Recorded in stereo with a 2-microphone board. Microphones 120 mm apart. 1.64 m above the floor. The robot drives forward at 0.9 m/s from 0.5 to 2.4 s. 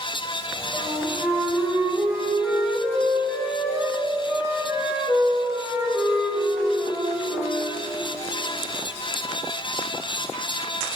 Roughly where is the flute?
Centre.